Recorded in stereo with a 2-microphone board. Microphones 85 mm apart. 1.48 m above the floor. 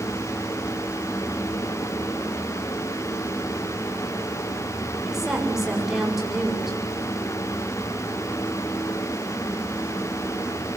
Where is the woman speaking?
5° right (ahead or behind), 7 m.